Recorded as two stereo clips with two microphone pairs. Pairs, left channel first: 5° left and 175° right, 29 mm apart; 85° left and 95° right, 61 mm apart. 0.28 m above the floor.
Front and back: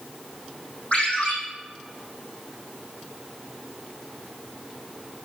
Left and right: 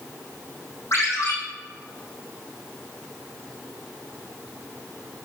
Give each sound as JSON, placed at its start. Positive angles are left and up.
{"t": 0.9, "sound": "a ringtone", "azimuth_deg": 45, "distance_m": 5.5}